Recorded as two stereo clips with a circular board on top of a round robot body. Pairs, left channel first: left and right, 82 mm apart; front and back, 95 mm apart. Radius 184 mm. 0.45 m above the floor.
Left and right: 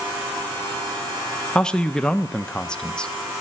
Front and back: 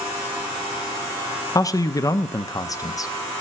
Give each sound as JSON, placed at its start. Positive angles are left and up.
{"t": 1.6, "sound": "a man speaking", "azimuth_deg": 15, "distance_m": 0.8}